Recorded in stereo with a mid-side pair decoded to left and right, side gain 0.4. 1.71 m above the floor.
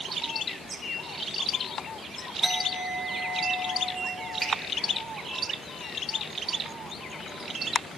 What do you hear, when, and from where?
2.4 s a clink: 5° right, 3 m
4.4 s a finger snap: 40° right, 4.5 m